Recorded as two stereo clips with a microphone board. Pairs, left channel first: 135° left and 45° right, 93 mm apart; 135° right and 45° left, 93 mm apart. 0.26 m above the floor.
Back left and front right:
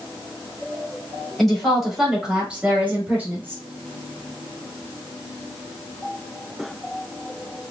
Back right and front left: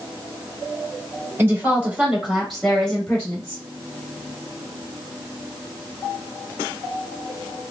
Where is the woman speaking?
50° left, 1.5 m; by 3.6 s 90° right, 1.6 m.